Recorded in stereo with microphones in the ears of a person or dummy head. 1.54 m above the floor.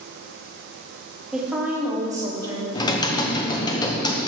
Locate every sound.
1.3 s a woman speaking: centre (ahead or behind), 2.5 m; by 2.6 s 25° right (ahead or behind), 2.5 m
2.8 s typing on a keyboard: 25° left (ahead or behind), 1.0 m